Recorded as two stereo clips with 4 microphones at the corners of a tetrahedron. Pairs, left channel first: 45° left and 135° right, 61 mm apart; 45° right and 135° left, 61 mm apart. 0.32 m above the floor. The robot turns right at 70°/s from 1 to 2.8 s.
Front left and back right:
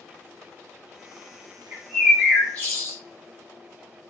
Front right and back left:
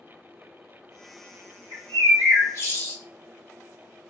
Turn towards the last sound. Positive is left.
turn(degrees=0)